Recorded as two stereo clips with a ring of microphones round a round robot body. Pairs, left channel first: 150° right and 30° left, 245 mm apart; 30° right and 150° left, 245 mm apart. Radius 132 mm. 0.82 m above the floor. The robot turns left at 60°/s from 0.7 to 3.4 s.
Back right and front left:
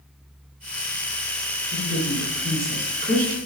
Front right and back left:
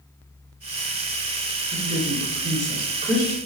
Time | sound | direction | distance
1.7 | a woman speaking | 165° left | 1.7 m